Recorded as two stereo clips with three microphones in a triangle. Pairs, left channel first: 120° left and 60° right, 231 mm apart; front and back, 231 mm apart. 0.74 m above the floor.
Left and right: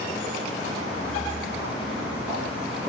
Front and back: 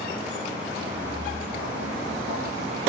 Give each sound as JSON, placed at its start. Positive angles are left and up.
{"t": 0.8, "sound": "footsteps", "azimuth_deg": -140, "distance_m": 5.0}